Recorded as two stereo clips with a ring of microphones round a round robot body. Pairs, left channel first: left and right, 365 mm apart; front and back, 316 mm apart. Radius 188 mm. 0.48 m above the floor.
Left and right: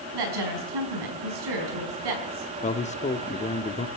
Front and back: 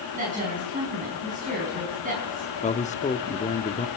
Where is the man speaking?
40° left, 1.0 m.